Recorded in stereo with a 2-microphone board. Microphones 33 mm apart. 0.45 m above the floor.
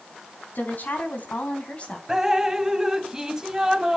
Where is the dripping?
10° right (ahead or behind), 1.0 m.